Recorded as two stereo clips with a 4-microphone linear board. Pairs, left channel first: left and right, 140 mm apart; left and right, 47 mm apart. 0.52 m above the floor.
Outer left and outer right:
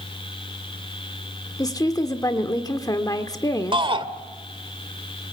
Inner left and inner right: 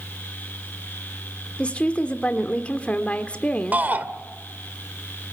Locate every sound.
1.6 s a woman speaking: 25° left (ahead or behind), 1.3 m
3.7 s a shout: 40° right (ahead or behind), 1.9 m